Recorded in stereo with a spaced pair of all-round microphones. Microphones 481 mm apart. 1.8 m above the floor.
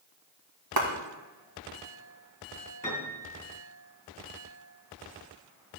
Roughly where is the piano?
Centre.